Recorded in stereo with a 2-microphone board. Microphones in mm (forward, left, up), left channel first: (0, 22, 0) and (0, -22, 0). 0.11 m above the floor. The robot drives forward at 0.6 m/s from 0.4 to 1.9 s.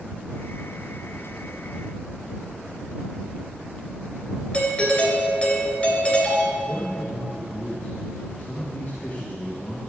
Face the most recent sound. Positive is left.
turn(degrees=40)  # may be behind; listen again after turning